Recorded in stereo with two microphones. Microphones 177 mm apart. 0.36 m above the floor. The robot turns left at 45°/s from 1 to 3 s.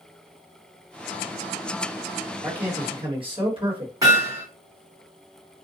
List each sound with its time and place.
2.4 s a man speaking: 30° right (ahead or behind), 1.5 m
4.0 s hammering: 20° right (ahead or behind), 2 m